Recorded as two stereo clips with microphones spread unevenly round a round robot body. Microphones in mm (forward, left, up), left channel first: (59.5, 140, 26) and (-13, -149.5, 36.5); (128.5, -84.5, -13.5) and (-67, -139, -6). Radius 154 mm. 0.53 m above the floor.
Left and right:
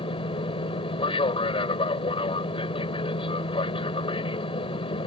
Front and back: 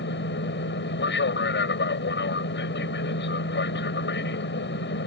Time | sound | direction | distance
0.0 | an aircraft | 5° left | ?